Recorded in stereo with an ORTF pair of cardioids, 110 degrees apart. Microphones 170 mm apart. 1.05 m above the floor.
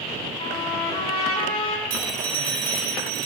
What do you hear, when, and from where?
0.4 s a trumpet: 35° left, 7 m
1.9 s a phone ringing: 70° right, 2 m